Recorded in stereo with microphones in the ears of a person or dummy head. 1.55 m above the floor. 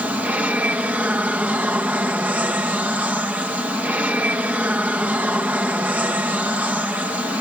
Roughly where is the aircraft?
Centre.